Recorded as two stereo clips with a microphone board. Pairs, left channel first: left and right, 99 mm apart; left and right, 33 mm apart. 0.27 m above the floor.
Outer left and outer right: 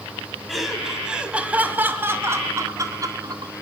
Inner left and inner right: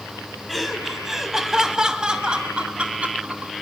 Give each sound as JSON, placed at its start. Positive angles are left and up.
{"t": 0.5, "sound": "laughter", "side_deg": 0, "distance_m": 2.0}